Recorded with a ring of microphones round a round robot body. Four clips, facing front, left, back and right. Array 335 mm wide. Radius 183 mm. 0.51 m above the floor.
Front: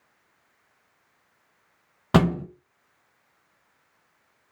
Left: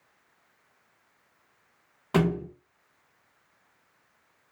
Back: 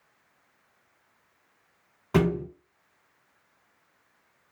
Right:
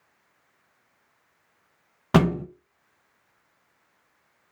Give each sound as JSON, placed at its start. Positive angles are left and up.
{"t": 2.1, "sound": "a thud", "azimuth_deg": -40, "distance_m": 0.5}